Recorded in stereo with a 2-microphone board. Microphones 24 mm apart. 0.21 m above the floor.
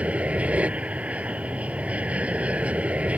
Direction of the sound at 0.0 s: 70° right (ahead or behind).